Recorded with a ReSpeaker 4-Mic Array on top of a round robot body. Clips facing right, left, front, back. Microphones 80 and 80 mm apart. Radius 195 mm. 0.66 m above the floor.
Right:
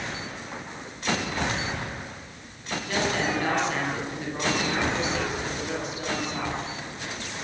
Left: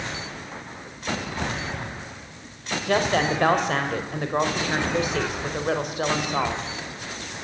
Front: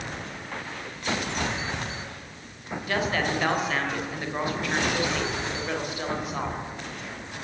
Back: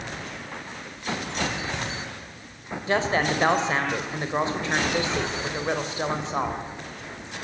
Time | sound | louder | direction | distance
2.9 | a woman speaking | left 5 dB, back 3 dB | 120° left | 3.5 m